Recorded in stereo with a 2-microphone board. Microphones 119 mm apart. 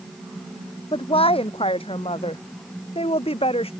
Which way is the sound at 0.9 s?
50° left (ahead or behind).